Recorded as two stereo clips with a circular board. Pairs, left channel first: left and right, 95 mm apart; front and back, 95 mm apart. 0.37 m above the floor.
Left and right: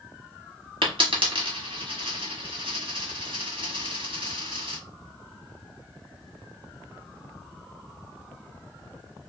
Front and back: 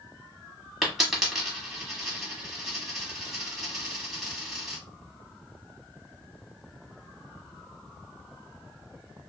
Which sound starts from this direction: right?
A dropped coin, at 0.8 s.